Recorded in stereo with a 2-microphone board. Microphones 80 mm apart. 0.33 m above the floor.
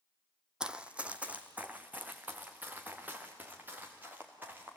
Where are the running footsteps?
10° right (ahead or behind), 0.9 m; by 4.8 s 25° right (ahead or behind), 4.5 m.